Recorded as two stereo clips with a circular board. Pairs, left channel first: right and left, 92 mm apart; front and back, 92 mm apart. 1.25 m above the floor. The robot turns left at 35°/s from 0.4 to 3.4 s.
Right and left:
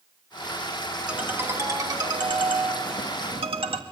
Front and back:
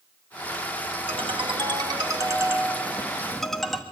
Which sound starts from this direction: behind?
A ringtone, at 1.1 s.